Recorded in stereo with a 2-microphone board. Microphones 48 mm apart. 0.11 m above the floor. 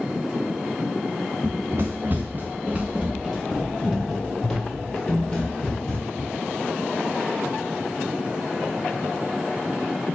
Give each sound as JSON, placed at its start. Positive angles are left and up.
{"t": 1.4, "sound": "running footsteps", "side_deg": -70, "distance_m": 0.9}